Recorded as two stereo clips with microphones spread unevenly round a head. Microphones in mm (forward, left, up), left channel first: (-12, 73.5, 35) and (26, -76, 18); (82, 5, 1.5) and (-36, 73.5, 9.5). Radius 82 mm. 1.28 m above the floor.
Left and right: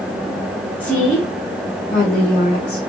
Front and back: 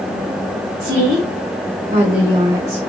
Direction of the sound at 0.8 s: 170° right.